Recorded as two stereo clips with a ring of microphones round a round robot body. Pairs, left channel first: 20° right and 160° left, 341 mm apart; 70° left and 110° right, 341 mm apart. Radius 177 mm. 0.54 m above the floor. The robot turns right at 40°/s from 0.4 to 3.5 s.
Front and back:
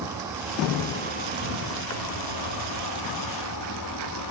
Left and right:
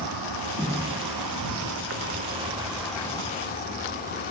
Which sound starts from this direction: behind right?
An insect, at 0.0 s.